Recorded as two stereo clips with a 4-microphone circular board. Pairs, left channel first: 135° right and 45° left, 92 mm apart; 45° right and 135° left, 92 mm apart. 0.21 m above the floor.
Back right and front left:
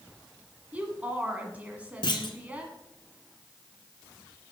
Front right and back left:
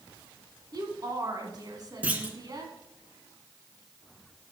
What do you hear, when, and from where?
0.7 s a woman speaking: 115° left, 1.7 m
2.0 s a clunk: 155° right, 1.0 m